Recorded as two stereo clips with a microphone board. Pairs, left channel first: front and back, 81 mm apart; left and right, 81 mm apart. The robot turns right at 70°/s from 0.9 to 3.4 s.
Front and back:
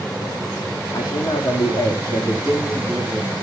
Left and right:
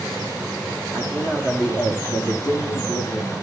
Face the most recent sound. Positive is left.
turn(degrees=120)